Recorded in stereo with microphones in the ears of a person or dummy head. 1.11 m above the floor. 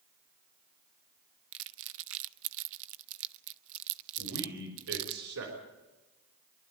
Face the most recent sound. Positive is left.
turn(degrees=-85)